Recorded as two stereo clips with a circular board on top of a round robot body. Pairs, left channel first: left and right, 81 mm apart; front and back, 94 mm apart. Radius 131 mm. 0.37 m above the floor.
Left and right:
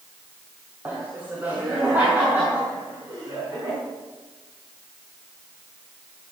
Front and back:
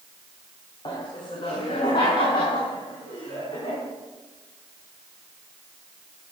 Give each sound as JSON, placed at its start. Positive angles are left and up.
{"t": 0.8, "sound": "laughter", "azimuth_deg": -20, "distance_m": 2.5}